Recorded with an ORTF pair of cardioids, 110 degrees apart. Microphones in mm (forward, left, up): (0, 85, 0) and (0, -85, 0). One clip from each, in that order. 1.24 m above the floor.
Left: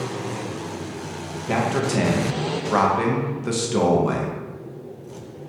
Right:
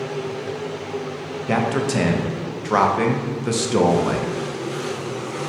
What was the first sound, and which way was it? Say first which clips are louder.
A man speaking: right 1 dB; 15° right.